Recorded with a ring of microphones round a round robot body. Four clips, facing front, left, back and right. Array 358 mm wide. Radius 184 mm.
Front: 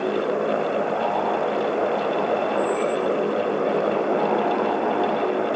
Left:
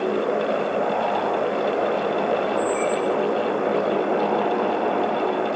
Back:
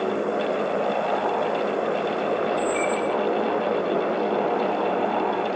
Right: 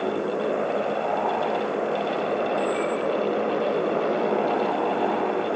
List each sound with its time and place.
2.6 s a squeak: 130° left, 0.6 m